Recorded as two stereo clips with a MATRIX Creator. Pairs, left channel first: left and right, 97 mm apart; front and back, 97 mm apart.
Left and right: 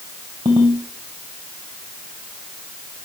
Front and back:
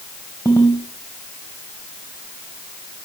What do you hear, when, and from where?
0.5 s a ringtone: 60° right, 2.5 m